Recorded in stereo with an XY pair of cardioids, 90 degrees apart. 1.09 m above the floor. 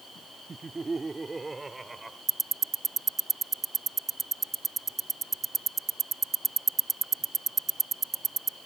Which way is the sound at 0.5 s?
35° right.